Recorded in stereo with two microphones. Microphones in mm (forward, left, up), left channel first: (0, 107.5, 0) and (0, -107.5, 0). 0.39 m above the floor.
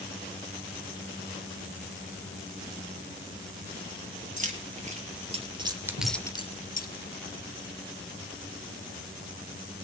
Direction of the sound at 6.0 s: 65° left (ahead or behind).